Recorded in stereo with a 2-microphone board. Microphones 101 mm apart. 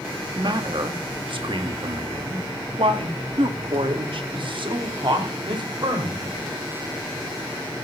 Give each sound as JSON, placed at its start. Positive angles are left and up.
{"t": 0.3, "sound": "a man speaking", "side_deg": -55, "distance_m": 2.5}